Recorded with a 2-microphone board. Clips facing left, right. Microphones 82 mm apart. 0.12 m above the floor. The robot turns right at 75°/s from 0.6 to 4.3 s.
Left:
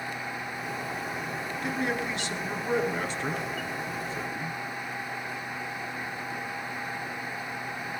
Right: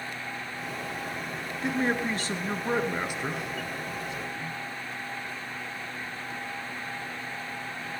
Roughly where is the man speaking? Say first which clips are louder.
Right 4 dB; behind right.